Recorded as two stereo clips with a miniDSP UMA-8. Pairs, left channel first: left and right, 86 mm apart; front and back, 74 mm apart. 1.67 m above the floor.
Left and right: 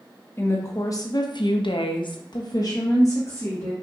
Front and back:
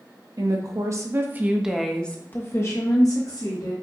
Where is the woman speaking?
150° left, 1.0 m; by 3.7 s 30° left, 1.3 m.